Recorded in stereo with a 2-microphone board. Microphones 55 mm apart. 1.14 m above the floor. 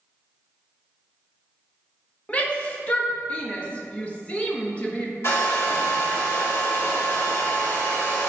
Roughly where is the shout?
Left.